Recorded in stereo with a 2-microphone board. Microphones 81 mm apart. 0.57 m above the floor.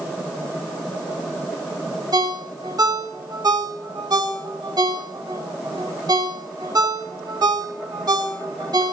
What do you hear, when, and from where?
2.1 s a ringtone: 55° right (ahead or behind), 0.9 m